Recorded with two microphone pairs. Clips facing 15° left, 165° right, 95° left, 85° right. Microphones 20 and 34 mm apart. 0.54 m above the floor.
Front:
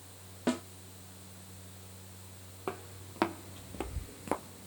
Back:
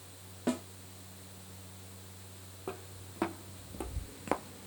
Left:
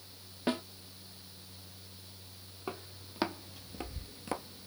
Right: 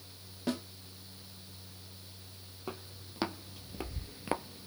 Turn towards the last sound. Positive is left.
turn(degrees=-135)